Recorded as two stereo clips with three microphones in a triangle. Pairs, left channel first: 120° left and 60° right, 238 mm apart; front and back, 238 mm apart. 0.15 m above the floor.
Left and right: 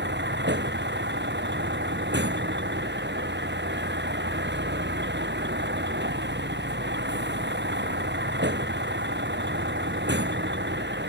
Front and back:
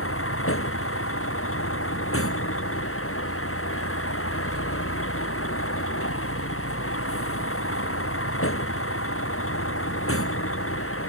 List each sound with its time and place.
0.0 s a vehicle: 20° right